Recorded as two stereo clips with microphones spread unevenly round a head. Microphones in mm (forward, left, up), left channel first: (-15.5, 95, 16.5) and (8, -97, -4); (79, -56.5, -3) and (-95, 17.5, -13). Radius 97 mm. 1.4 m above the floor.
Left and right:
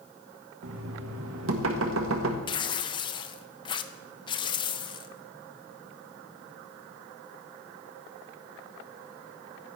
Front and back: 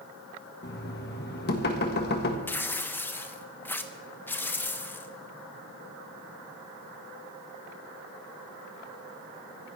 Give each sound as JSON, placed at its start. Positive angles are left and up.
{"t": 0.6, "sound": "knocking", "azimuth_deg": -60, "distance_m": 1.6}
{"t": 2.5, "sound": "tearing paper", "azimuth_deg": 50, "distance_m": 0.6}